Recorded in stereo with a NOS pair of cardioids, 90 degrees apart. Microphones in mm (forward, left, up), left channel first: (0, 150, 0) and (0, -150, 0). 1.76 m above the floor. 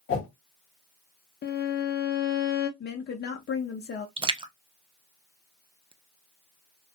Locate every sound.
0.1 s a whoosh: 45° left, 1.1 m
1.4 s a violin: 35° left, 0.6 m
2.8 s a woman speaking: 35° left, 0.7 m
4.2 s a splash: 15° right, 0.5 m